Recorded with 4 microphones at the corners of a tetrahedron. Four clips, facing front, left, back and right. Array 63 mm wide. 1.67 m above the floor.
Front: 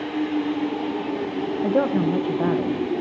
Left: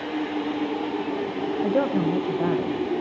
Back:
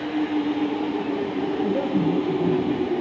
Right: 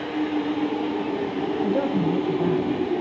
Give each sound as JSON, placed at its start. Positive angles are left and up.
{"t": 1.6, "sound": "a woman speaking", "azimuth_deg": 30, "distance_m": 1.3}